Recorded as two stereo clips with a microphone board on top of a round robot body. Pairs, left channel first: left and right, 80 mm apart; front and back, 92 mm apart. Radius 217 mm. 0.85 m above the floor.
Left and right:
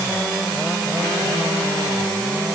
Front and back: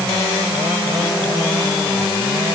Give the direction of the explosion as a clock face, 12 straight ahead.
No explosion in this recording.